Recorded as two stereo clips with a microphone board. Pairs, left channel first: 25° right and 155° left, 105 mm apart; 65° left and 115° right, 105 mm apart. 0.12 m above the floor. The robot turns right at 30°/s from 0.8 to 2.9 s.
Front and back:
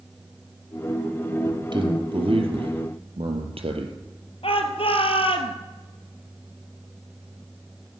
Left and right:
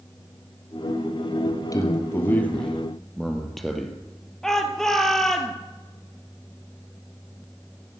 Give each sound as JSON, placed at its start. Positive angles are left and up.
{"t": 1.4, "sound": "a man speaking", "azimuth_deg": 110, "distance_m": 3.0}
{"t": 4.4, "sound": "a shout", "azimuth_deg": -20, "distance_m": 2.5}